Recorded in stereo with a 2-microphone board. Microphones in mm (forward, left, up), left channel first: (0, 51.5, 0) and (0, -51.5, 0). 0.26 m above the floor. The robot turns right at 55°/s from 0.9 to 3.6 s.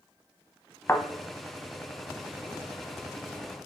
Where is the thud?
25° left (ahead or behind), 0.8 m; by 1.0 s 30° left (ahead or behind), 0.8 m.